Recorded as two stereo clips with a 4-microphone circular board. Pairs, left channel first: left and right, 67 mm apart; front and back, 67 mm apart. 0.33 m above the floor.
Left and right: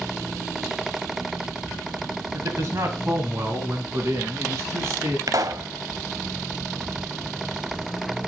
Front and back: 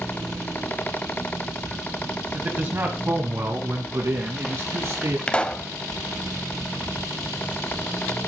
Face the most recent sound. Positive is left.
turn(degrees=-75)